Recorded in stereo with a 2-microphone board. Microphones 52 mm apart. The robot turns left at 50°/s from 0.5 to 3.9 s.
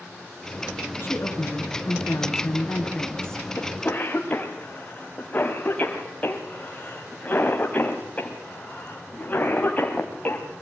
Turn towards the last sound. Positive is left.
turn(degrees=30)  # may be behind; listen again after turning